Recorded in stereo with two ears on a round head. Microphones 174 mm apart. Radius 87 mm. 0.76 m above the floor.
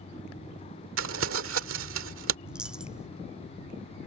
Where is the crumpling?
75° right (ahead or behind).